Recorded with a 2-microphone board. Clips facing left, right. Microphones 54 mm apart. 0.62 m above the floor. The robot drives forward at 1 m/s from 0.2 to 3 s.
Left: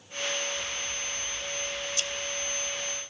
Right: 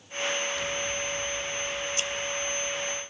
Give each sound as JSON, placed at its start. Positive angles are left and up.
{"t": 0.6, "sound": "scissors", "side_deg": -65, "distance_m": 0.8}